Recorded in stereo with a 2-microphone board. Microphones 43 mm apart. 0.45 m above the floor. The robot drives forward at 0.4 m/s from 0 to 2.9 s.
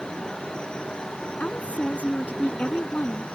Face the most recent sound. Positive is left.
turn(degrees=40)  # may be behind; listen again after turning